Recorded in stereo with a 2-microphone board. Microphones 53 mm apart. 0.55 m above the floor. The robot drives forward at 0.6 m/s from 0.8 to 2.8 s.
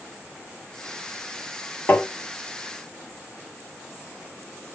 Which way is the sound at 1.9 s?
35° left (ahead or behind).